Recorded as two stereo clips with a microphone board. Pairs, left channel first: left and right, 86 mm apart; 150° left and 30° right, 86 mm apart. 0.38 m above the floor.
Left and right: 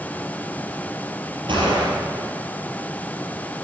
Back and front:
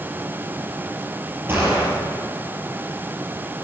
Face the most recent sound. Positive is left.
turn(degrees=-95)